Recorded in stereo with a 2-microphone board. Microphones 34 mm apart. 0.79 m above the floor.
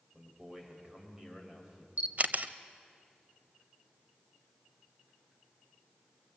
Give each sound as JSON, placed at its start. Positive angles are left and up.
{"t": 0.1, "sound": "a man speaking", "side_deg": -20, "distance_m": 4.5}
{"t": 2.0, "sound": "a camera shutter", "side_deg": -50, "distance_m": 0.8}